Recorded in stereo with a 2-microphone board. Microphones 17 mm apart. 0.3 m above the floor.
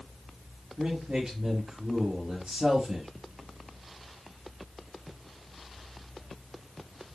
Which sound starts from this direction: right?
A man speaking, at 0.8 s.